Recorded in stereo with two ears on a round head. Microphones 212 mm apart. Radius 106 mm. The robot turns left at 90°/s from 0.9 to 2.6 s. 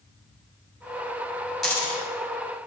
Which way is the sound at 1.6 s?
Centre (ahead or behind).